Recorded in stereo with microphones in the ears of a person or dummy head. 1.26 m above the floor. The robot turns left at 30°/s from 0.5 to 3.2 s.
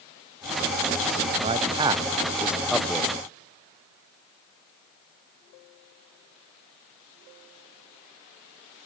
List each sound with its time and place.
1.4 s a man speaking: 25° right (ahead or behind), 0.5 m; by 3.1 s 10° left (ahead or behind), 0.5 m